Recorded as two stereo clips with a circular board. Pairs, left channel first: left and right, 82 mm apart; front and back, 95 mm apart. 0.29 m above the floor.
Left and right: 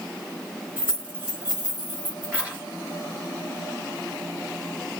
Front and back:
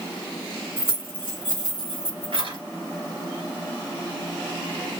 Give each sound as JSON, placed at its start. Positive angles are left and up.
{"t": 0.8, "sound": "keys jangling", "azimuth_deg": -155, "distance_m": 2.5}